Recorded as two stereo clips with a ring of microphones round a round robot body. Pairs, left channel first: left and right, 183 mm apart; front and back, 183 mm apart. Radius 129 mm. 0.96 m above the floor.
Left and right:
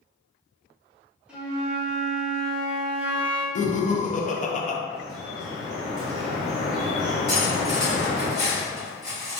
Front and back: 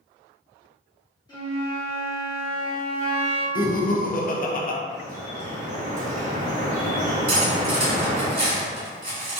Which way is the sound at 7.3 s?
140° left.